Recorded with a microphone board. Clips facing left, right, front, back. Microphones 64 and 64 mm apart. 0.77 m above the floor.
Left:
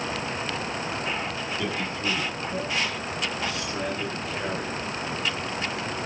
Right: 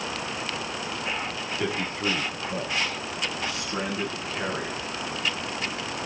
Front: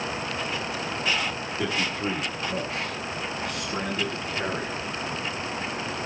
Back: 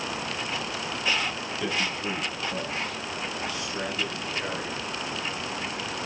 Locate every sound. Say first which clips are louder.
1.6 s a man speaking: right 3 dB, front 2 dB; 25° right, 7 m; by 4.8 s 30° right, 8.5 m